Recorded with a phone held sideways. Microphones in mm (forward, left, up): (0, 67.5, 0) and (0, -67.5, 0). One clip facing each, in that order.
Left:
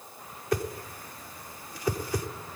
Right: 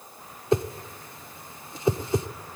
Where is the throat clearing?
No throat clearing in this recording.